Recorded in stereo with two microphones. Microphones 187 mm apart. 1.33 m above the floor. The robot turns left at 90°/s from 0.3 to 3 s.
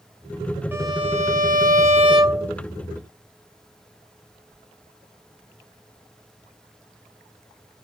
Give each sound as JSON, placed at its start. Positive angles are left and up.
{"t": 0.7, "sound": "a violin", "azimuth_deg": -15}